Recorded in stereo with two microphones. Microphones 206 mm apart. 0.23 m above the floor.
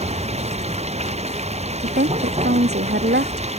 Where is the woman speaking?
55° right (ahead or behind).